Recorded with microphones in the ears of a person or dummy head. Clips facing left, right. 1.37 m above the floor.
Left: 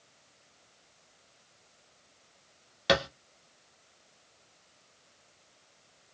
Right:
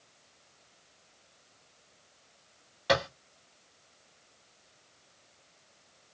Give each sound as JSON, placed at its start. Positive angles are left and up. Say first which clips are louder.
{"t": 2.9, "sound": "a thud", "louder": "left 1 dB", "side_deg": 35, "distance_m": 0.8}